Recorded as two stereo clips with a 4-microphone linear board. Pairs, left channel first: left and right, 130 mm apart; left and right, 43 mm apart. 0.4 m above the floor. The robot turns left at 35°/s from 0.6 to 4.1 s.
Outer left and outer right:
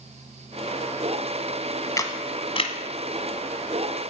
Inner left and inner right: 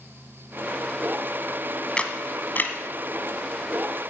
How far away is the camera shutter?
About 1.4 m.